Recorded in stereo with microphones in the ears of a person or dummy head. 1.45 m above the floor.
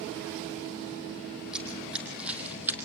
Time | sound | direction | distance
1.5 | running footsteps | centre (ahead or behind) | 3.5 m